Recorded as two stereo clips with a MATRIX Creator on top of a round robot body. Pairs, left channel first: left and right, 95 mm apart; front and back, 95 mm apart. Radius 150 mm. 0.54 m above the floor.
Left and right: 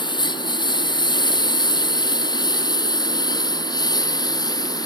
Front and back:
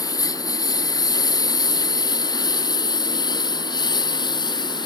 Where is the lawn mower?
50° left; by 4.9 s 45° left.